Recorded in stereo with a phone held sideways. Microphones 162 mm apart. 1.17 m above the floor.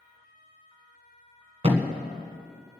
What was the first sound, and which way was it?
A thud, 40° right (ahead or behind).